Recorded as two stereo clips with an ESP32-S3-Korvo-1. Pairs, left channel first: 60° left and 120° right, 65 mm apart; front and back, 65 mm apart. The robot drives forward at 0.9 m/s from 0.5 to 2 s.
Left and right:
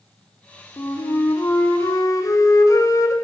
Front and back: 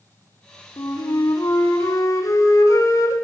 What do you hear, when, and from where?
0.8 s a flute: 20° left, 3 m; by 3.1 s 35° left, 1.8 m